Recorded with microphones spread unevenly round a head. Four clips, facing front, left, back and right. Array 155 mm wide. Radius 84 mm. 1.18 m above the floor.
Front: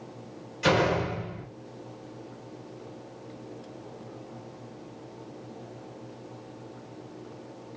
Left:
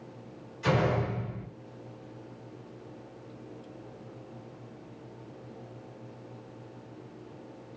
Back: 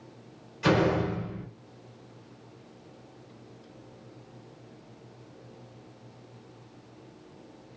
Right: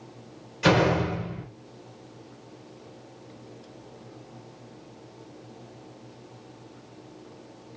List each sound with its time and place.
0.6 s a door slam: 75° right, 4.5 m